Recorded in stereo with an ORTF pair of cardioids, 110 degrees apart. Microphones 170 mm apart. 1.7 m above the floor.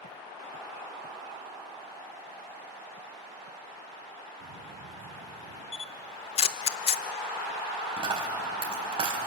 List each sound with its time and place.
4.4 s footsteps: 55° right, 7.5 m
5.7 s a camera shutter: 35° left, 0.8 m
8.0 s a dropped coin: 30° right, 4.5 m